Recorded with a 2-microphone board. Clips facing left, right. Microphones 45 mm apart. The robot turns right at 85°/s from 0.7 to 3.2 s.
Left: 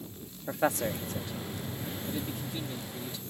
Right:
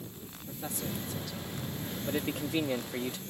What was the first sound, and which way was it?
A man speaking, 75° left (ahead or behind).